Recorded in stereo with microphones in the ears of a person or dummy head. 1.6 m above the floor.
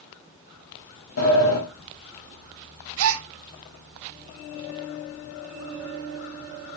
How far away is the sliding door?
About 2.5 m.